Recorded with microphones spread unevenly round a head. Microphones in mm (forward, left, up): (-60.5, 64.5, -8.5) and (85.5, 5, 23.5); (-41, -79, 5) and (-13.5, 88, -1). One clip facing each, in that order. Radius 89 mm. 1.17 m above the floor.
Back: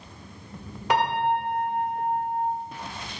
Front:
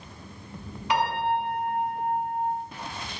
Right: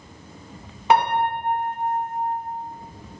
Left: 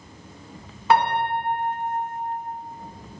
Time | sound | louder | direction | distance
0.9 | a piano | back 2 dB, right 1 dB | 160° right | 0.8 m